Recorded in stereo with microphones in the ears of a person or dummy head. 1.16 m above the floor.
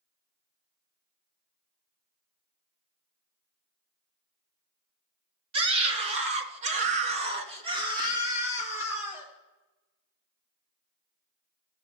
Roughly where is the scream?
Right.